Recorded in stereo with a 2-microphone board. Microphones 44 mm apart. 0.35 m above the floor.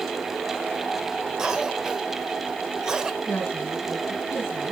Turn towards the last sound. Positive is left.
turn(degrees=50)  # may be behind; listen again after turning